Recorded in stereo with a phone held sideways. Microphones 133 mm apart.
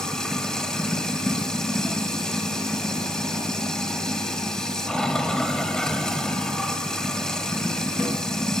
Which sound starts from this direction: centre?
Running water, at 0.0 s.